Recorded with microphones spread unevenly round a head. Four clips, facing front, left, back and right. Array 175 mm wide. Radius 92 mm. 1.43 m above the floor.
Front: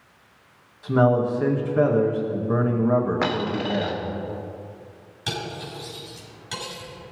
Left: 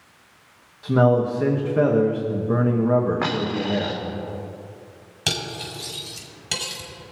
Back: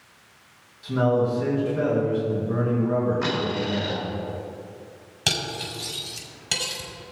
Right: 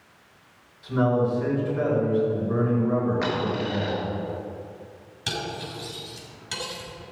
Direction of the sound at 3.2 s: 40° left.